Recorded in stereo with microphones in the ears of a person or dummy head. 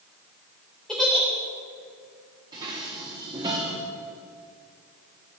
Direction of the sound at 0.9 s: Centre (ahead or behind).